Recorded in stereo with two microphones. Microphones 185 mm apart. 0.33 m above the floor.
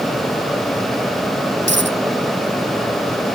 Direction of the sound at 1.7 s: 80° right.